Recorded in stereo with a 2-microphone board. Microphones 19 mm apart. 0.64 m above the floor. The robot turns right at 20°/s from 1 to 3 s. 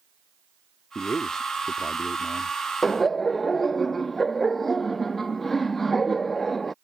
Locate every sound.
0.9 s a man speaking: 50° left; by 2.6 s 80° left
2.8 s laughter: 10° left (ahead or behind)